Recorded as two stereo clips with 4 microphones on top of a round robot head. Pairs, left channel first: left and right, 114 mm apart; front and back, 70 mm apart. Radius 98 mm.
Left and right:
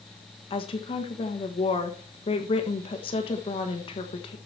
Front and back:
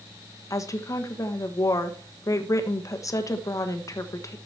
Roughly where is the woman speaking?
Ahead left.